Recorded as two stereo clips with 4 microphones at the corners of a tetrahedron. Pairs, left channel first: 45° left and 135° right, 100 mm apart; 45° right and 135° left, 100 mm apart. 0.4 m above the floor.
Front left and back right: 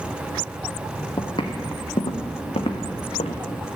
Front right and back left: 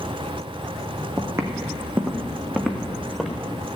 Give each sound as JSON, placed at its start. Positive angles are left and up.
{"t": 1.2, "sound": "footsteps", "azimuth_deg": 80, "distance_m": 1.4}